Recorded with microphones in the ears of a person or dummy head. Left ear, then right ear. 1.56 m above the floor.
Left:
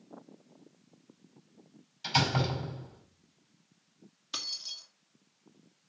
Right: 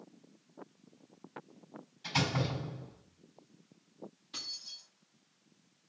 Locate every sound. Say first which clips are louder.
2.0 s a door slam: left 5 dB; 45° left (ahead or behind), 5.5 m
4.3 s keys jangling: left 5 dB; 50° left (ahead or behind), 2 m